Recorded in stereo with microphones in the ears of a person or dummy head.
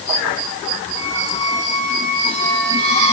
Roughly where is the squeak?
Left.